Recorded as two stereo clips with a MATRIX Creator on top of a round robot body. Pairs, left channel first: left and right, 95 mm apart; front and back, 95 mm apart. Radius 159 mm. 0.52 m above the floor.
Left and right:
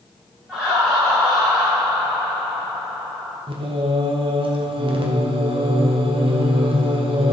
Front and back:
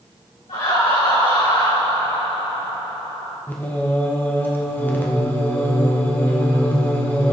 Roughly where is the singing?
Right.